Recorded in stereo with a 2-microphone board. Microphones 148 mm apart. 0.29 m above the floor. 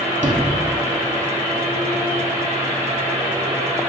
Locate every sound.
0.2 s a sliding door: 55° right (ahead or behind), 0.7 m